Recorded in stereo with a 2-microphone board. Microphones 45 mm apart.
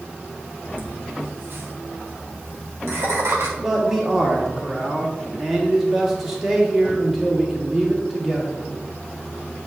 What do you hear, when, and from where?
0.7 s laughter: 55° right (ahead or behind), 2.0 m; by 3.5 s 75° right (ahead or behind), 2 m
3.6 s a man speaking: 5° right (ahead or behind), 1.6 m